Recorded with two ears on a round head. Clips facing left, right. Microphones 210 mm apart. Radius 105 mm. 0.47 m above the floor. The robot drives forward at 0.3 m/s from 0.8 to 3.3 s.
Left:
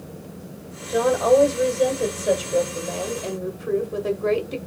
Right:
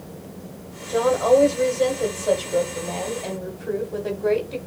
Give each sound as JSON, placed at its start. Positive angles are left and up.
{"t": 0.9, "sound": "a woman speaking", "side_deg": 10, "distance_m": 1.4}